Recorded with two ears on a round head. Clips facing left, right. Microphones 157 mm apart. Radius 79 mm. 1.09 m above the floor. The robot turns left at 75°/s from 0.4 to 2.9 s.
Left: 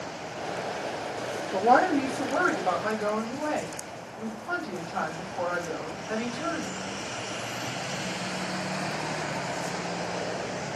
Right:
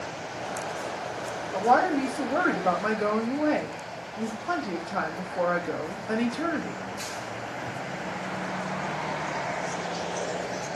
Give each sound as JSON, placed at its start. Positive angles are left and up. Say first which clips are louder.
{"t": 1.5, "sound": "a woman speaking", "louder": "left 1 dB", "azimuth_deg": 30, "distance_m": 1.0}